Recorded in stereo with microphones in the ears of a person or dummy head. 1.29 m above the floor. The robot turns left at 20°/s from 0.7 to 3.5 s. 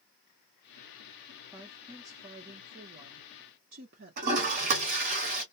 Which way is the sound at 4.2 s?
50° right (ahead or behind).